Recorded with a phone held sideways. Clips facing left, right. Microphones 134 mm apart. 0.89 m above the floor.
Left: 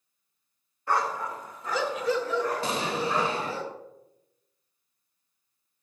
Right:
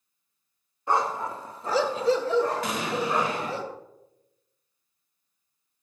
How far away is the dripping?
No dripping in this recording.